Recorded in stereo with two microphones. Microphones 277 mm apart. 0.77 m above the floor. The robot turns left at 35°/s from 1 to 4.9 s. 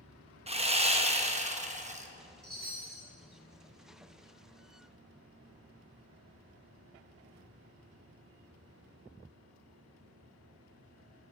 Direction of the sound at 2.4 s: 55° right (ahead or behind).